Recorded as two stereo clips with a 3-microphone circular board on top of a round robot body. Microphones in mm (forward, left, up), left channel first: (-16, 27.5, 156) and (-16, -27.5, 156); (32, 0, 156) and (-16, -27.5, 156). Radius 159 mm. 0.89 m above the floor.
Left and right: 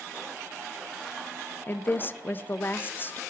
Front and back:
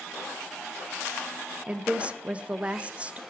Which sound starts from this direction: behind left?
A woman speaking, at 1.7 s.